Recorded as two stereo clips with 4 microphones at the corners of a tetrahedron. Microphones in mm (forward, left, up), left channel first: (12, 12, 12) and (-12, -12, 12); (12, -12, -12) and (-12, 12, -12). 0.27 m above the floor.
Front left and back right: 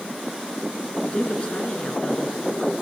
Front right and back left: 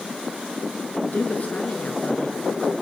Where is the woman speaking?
10° right, 3.5 m.